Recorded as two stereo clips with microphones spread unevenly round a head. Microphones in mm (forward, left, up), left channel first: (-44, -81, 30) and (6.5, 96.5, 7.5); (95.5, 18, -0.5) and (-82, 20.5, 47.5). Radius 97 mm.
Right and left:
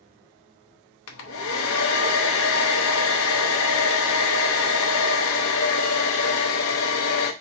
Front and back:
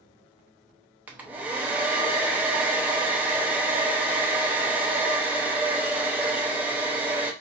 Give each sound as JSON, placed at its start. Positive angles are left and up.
{"t": 1.1, "sound": "a hair dryer", "azimuth_deg": -95, "distance_m": 0.7}